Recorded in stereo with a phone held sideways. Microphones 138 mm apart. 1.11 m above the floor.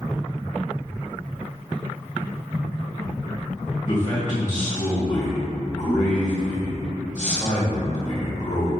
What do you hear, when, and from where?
3.9 s a man speaking: 60° left (ahead or behind), 1.7 m